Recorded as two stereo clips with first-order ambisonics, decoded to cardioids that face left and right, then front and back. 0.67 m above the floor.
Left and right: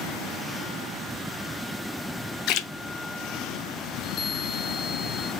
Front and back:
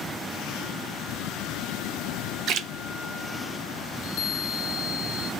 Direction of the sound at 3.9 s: 35° left.